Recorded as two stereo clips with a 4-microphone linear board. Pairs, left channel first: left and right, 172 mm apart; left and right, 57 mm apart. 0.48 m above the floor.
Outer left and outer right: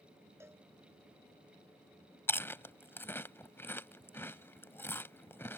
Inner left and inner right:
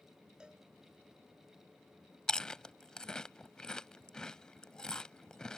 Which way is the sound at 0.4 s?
15° right (ahead or behind).